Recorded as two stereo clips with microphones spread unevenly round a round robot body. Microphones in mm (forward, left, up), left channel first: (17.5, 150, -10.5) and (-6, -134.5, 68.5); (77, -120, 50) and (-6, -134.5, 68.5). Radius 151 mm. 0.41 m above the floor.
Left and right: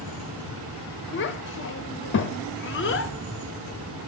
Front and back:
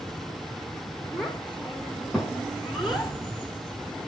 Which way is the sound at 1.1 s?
90° left.